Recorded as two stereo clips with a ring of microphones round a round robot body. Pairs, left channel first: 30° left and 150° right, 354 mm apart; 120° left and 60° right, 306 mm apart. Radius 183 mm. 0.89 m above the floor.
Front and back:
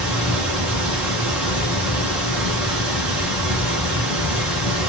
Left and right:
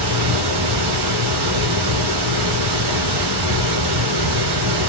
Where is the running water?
65° right, 2.5 m.